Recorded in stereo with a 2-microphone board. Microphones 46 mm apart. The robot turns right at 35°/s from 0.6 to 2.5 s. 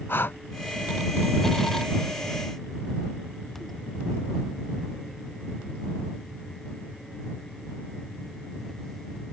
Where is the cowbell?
No cowbell in this recording.